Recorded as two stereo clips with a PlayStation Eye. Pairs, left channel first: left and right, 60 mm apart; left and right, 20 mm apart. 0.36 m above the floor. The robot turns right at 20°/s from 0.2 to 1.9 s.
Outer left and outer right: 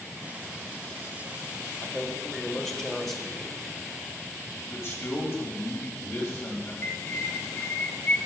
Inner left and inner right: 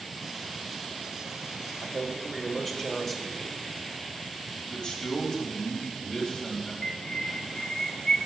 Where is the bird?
35° left (ahead or behind), 0.7 m.